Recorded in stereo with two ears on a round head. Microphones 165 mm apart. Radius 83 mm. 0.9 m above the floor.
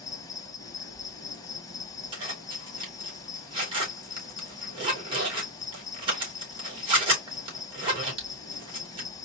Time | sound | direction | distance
0.0 | an insect | 20° left (ahead or behind) | 1.0 m
2.1 | a zipper | 30° right (ahead or behind) | 3 m